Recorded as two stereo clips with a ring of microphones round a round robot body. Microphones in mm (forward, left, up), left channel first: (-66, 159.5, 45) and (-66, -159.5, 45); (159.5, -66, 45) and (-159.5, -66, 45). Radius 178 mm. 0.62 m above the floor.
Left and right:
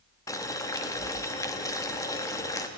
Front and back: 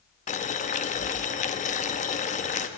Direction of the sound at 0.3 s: 25° left.